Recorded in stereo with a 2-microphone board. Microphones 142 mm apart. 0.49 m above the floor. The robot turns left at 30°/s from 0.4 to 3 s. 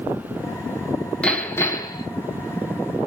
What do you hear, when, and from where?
1.2 s hammering: 5° left (ahead or behind), 4.5 m; by 2.1 s 30° left (ahead or behind), 4.5 m